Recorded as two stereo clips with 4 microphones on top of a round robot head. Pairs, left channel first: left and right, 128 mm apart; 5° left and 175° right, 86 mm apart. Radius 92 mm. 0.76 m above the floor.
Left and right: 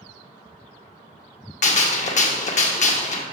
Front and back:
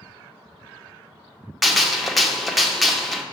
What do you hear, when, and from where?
1.6 s a gunshot: 95° left, 0.9 m